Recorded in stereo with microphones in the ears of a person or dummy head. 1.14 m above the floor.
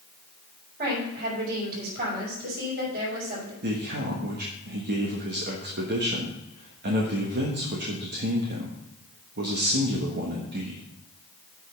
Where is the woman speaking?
55° right (ahead or behind), 4.5 m.